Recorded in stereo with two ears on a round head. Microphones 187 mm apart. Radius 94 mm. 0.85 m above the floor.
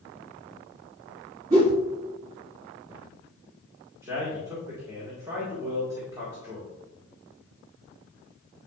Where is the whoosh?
35° right (ahead or behind), 2 m.